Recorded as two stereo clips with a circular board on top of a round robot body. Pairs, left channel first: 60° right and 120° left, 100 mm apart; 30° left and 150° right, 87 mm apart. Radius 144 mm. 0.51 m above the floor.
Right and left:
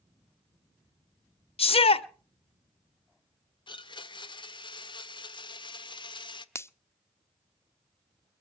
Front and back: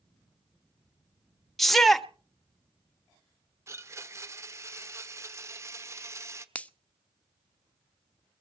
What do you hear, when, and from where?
1.6 s a shout: 60° right, 1.6 m
3.7 s a blender: 95° right, 1.4 m
6.5 s a finger snap: 30° right, 1.0 m